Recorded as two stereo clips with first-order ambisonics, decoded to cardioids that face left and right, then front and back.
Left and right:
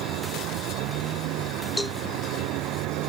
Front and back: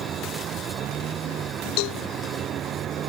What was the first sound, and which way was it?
A vehicle, 125° right.